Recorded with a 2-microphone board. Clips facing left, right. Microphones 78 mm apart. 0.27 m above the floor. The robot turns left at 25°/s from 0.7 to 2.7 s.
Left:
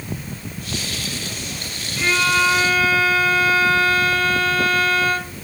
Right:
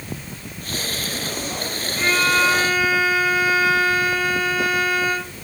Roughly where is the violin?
Right.